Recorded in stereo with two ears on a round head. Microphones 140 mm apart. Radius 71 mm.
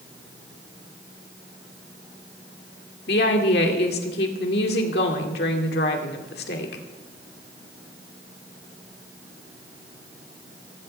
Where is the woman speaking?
70° left (ahead or behind), 2 m.